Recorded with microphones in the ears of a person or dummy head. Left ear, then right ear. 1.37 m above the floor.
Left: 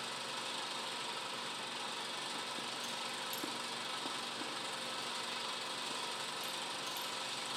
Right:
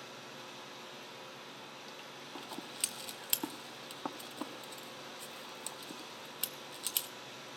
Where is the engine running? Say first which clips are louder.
Left 6 dB; 55° left (ahead or behind), 1.1 m.